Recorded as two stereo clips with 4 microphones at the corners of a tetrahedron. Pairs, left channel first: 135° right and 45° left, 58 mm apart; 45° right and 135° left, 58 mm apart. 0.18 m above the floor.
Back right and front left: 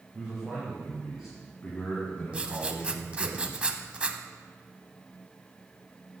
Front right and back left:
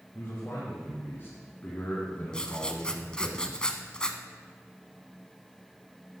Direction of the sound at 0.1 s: 30° right.